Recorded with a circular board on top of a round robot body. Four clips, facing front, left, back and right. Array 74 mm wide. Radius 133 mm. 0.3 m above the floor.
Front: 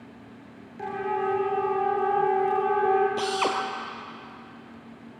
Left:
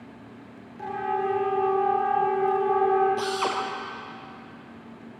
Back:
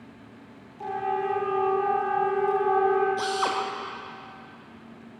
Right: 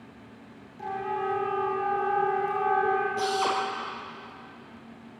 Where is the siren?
15° left, 7.5 m; by 3.1 s 10° left, 10.5 m.